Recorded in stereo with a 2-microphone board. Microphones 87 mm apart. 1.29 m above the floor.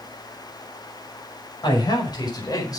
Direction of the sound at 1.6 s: 60° left (ahead or behind).